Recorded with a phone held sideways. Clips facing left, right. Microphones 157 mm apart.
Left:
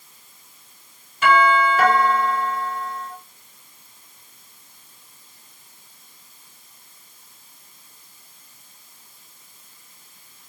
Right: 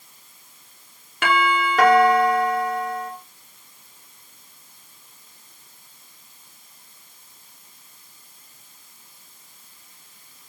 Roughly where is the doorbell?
Right.